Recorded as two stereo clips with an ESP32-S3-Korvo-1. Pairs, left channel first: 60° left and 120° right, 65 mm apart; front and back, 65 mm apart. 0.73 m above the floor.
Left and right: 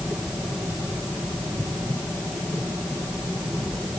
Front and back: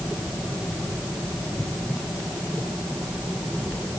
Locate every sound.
Only background noise.